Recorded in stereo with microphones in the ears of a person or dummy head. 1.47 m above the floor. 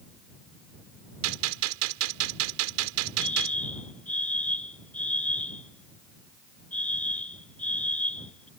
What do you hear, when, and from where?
1.2 s a gunshot: 85° right
3.2 s a fire alarm: 5° left (ahead or behind)